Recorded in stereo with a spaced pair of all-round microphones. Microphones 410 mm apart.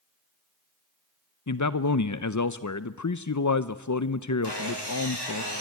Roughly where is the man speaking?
Left.